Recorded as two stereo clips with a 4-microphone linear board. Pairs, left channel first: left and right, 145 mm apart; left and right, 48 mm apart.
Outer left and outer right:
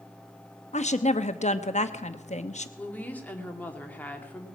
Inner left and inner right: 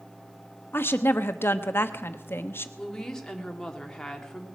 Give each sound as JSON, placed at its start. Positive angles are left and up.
{"t": 0.7, "sound": "a woman speaking", "side_deg": 50, "distance_m": 0.9}
{"t": 2.8, "sound": "a woman speaking", "side_deg": 10, "distance_m": 1.9}